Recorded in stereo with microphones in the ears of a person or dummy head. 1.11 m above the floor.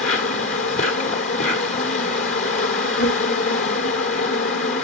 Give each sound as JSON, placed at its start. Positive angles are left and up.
{"t": 0.0, "sound": "an insect", "side_deg": 25, "distance_m": 1.1}